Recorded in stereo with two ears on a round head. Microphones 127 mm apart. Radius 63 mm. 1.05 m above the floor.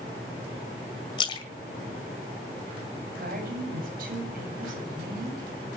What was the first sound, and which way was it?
A splash, 35° left (ahead or behind).